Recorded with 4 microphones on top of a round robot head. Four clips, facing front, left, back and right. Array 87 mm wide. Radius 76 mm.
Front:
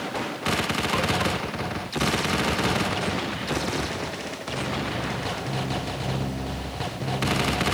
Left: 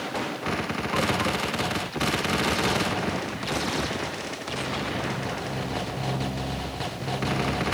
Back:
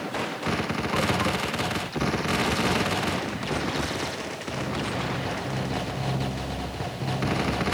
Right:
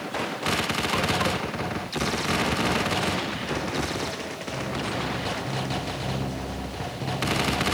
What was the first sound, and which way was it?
Only background noise.